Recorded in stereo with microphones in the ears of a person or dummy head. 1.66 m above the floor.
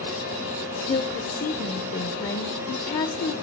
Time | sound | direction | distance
0.7 | a woman speaking | 20° left (ahead or behind) | 0.6 m